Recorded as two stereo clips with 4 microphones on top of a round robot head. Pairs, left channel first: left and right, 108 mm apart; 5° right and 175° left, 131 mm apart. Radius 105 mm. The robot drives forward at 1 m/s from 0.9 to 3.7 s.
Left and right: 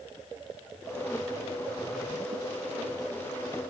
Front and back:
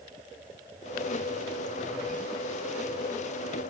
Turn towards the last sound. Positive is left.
No sound to turn to.